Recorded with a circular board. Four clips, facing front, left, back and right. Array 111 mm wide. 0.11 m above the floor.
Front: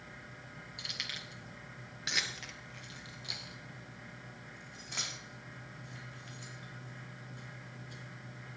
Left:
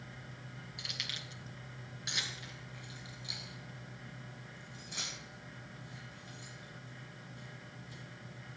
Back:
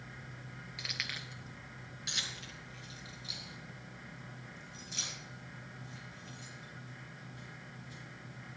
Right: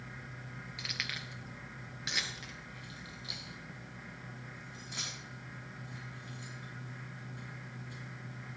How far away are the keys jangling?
About 1.4 m.